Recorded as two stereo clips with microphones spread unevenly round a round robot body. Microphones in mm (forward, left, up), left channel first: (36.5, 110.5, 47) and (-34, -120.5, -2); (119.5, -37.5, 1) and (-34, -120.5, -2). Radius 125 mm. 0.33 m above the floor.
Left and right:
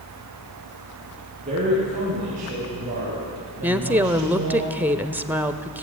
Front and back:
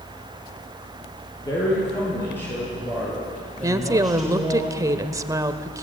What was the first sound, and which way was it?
A man speaking, 45° right.